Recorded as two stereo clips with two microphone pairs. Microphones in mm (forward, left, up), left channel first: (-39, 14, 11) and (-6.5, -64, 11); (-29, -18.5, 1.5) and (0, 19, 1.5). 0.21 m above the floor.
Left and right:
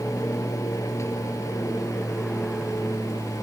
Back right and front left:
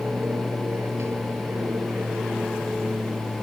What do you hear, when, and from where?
0.0 s an aircraft: 55° left; by 3.4 s 60° left